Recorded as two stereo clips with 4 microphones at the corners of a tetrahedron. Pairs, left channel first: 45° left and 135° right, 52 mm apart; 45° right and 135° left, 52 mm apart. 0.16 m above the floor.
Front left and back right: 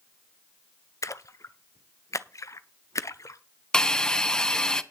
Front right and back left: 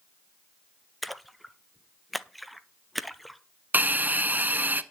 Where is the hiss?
115° left, 0.5 m.